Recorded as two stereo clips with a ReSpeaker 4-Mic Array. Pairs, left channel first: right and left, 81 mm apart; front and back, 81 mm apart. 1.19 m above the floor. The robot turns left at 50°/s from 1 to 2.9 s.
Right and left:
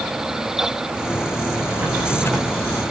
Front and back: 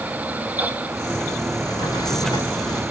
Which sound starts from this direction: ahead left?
A drawer, at 1.6 s.